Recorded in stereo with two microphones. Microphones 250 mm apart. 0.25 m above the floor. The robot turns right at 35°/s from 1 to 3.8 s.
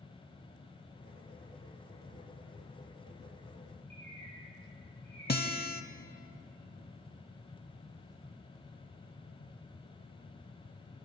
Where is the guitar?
40° left (ahead or behind), 0.8 m.